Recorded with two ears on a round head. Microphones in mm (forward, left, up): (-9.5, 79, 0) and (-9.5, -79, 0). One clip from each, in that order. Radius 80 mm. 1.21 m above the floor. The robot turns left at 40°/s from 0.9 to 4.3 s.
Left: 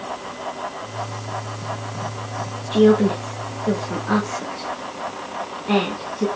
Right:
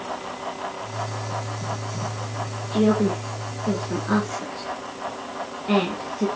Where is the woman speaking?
55° left (ahead or behind), 1.1 m; by 6.3 s 10° right (ahead or behind), 1.1 m.